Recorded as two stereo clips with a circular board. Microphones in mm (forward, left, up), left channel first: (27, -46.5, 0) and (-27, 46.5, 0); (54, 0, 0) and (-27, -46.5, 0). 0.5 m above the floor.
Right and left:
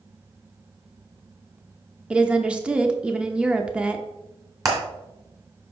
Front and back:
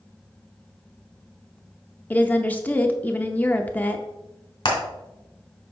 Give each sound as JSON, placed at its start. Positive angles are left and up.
{"t": 2.1, "sound": "a woman speaking", "azimuth_deg": 60, "distance_m": 0.7}
{"t": 4.7, "sound": "hammering", "azimuth_deg": 65, "distance_m": 2.5}